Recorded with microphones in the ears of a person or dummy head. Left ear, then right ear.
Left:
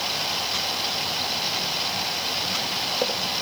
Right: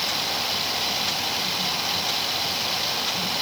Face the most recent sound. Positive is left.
No sound to turn to.